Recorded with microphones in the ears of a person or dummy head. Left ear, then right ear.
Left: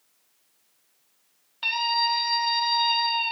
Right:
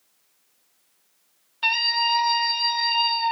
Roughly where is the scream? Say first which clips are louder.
Right 3 dB; centre.